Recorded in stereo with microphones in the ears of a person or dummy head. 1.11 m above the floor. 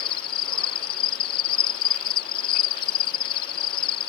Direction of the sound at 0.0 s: 30° left (ahead or behind).